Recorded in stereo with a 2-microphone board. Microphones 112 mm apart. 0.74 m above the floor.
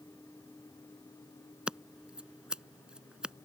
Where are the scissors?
10° right (ahead or behind).